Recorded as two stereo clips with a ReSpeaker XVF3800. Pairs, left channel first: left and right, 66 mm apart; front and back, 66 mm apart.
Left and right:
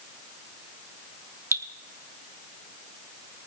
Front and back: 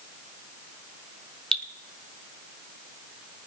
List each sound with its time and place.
1.5 s dripping: 75° right, 1.0 m